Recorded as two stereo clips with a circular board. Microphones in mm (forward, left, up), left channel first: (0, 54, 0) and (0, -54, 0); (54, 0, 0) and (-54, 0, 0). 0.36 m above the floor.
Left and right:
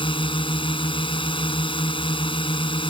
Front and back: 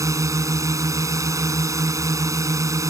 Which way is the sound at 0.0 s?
120° left.